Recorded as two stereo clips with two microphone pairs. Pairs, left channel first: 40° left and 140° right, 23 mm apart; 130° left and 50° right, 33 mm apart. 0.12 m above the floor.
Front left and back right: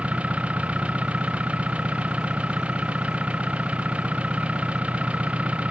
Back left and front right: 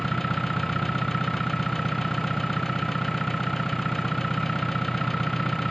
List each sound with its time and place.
0.0 s an engine running: 150° right